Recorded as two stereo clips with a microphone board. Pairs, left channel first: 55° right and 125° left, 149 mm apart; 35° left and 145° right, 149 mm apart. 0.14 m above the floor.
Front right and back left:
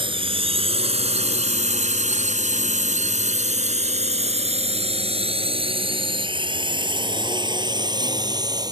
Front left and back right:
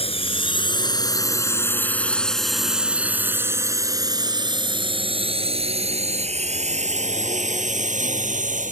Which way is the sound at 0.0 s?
75° left.